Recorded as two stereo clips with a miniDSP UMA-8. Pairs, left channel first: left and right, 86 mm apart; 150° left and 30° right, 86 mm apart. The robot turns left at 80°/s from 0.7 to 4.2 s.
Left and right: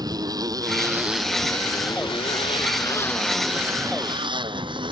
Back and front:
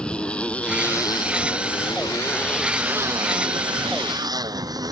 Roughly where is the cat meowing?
I don't hear a cat meowing.